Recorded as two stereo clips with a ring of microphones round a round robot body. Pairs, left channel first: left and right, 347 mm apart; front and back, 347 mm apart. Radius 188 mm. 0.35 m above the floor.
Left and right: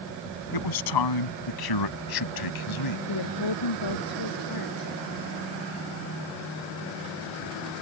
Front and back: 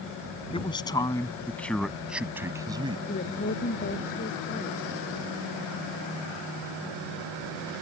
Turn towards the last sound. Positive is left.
turn(degrees=70)